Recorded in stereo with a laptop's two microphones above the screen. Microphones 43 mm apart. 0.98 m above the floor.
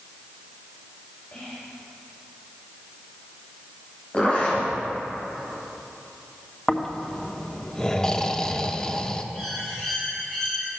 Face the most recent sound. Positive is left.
turn(degrees=10)  # may be behind; listen again after turning